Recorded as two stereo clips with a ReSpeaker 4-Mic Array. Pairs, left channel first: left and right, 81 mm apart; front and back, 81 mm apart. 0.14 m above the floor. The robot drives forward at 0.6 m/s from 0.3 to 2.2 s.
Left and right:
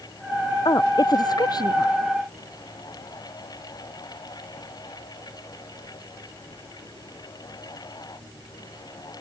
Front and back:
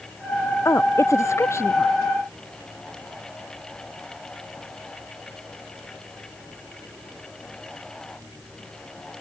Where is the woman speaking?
55° left.